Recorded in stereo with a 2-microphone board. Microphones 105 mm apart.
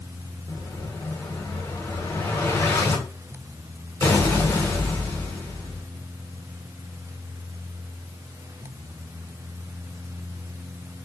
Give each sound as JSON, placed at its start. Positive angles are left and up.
{"t": 0.5, "sound": "an explosion", "side_deg": 25, "distance_m": 1.4}